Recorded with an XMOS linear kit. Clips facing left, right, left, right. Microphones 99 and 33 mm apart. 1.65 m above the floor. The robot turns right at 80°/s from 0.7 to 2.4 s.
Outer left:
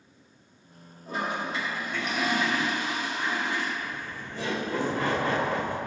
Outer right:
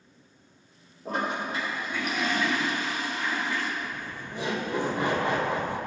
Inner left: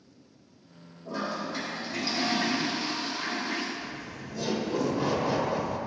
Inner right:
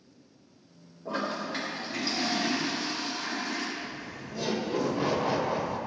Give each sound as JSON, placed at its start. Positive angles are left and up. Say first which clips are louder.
{"t": 1.1, "sound": "a toilet flushing", "louder": "outer right 1 dB, inner right 1 dB", "azimuth_deg": -85, "distance_m": 3.0}
{"t": 3.8, "sound": "laughter", "louder": "even, even", "side_deg": -15, "distance_m": 1.8}